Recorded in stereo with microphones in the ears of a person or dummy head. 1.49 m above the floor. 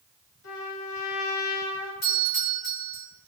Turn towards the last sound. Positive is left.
turn(degrees=55)  # may be behind; listen again after turning